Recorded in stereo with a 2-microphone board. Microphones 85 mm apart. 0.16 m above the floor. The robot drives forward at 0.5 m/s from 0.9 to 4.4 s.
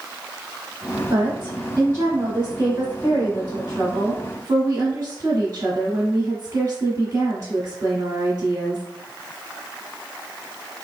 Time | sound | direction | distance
1.1 | a woman speaking | 25° right (ahead or behind) | 2 m